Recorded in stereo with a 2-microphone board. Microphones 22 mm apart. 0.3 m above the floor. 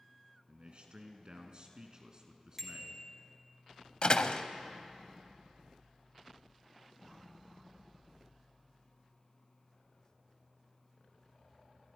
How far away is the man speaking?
About 3 m.